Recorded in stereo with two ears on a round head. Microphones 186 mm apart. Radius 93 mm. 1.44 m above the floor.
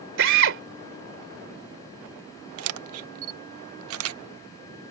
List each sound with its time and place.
0.2 s a drill: 70° right (ahead or behind)
2.6 s a camera shutter: 80° right